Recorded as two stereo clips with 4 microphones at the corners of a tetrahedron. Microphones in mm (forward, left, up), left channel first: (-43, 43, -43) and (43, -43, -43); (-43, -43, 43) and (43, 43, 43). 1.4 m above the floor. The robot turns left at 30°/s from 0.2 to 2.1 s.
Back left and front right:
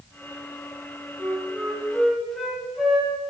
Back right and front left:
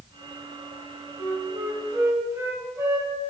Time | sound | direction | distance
1.2 | a flute | 80° left | 1.3 m